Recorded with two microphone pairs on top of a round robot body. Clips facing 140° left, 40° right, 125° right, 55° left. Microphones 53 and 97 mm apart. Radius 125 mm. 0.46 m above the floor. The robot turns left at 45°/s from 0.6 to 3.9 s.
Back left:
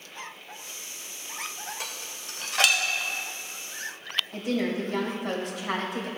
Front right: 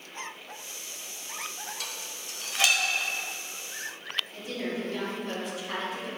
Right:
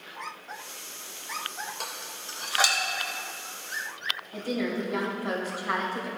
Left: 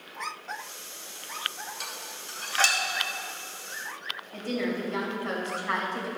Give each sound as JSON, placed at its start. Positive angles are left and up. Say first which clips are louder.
{"t": 1.8, "sound": "dishes clattering", "louder": "back left 1 dB, right 2 dB", "azimuth_deg": -160, "distance_m": 1.5}
{"t": 4.3, "sound": "a woman speaking", "louder": "back left 9 dB, even", "azimuth_deg": 160, "distance_m": 2.5}